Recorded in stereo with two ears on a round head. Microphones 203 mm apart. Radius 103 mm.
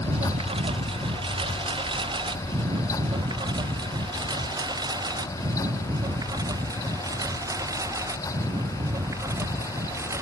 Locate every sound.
0.0 s a lawn mower: 25° right (ahead or behind); by 10.2 s 15° right (ahead or behind)